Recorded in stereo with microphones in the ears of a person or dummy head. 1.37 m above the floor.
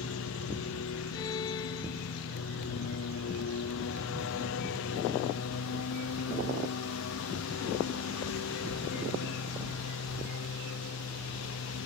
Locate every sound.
0.0 s a lawn mower: 75° left (ahead or behind)
1.1 s a violin: 25° left (ahead or behind)